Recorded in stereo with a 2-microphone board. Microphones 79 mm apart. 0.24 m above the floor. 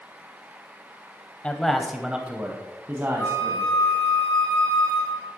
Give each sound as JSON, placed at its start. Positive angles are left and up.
{"t": 1.4, "sound": "a man speaking", "side_deg": 15, "distance_m": 0.9}
{"t": 3.2, "sound": "a flute", "side_deg": 15, "distance_m": 3.0}